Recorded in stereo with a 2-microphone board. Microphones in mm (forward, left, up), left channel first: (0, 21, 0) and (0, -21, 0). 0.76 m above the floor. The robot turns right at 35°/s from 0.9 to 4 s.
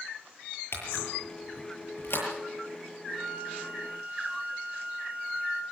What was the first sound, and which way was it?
A camera shutter, 75° left (ahead or behind).